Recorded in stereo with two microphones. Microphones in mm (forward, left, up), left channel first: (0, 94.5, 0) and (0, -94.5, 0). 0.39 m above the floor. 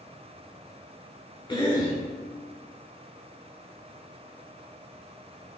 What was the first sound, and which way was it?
A cough, 20° left (ahead or behind).